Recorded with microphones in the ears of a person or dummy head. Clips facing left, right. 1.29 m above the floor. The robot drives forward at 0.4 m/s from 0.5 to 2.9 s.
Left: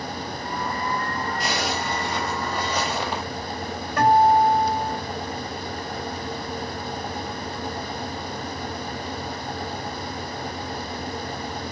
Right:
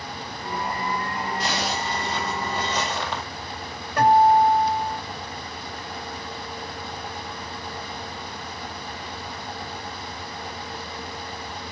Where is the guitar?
5° left (ahead or behind), 2.5 m.